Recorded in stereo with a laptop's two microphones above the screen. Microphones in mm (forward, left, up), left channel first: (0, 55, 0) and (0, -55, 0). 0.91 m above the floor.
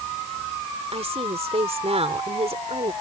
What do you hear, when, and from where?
0.9 s a woman speaking: 65° right (ahead or behind)